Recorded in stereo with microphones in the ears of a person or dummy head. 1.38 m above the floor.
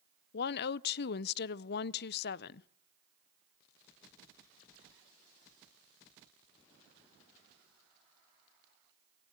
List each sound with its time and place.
0.3 s a woman speaking: 60° left (ahead or behind), 0.5 m